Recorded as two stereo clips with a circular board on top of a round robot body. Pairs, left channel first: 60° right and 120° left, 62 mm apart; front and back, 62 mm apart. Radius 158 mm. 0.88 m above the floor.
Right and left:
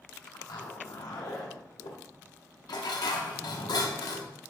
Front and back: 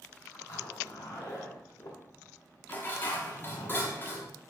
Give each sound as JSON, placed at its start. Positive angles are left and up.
{"t": 0.3, "sound": "a zipper", "azimuth_deg": -50, "distance_m": 1.4}
{"t": 2.7, "sound": "dishes clattering", "azimuth_deg": -60, "distance_m": 1.0}